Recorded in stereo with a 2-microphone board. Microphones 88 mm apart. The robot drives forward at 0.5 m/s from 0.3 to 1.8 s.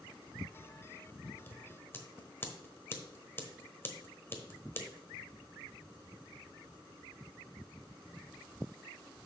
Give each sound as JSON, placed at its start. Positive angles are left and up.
{"t": 1.5, "sound": "scissors", "side_deg": 25, "distance_m": 0.9}